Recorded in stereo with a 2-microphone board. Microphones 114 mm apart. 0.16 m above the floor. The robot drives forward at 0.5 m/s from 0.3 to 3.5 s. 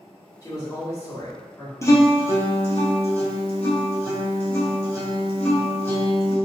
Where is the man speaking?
30° left (ahead or behind), 1.6 m; by 1.7 s 25° left (ahead or behind), 1.9 m.